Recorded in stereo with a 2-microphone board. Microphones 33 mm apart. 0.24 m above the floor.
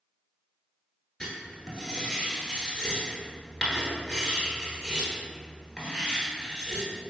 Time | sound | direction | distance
1.2 | writing | 20° left (ahead or behind) | 1.3 m